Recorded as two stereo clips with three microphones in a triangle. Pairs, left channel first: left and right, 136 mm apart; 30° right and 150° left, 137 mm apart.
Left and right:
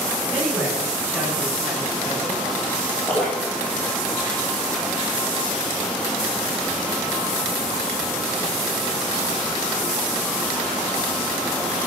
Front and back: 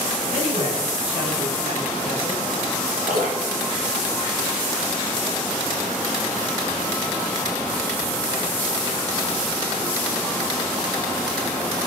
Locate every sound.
0.3 s a man speaking: 170° right, 8.5 m
3.1 s dripping: 175° left, 9 m